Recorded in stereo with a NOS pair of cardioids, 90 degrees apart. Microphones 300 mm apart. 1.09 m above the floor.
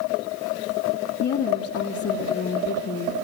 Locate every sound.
1.2 s a woman speaking: 50° left, 2 m